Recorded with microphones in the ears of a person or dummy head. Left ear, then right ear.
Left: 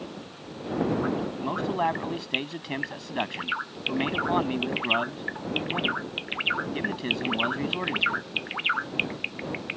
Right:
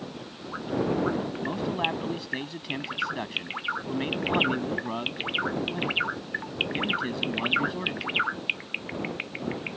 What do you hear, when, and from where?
1.4 s a man speaking: 25° left (ahead or behind)